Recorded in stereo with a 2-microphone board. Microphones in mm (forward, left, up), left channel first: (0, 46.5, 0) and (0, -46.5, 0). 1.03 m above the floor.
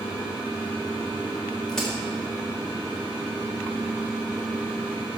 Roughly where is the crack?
Centre.